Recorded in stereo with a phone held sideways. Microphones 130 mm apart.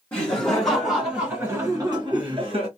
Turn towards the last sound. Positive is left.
turn(degrees=-50)  # may be behind; listen again after turning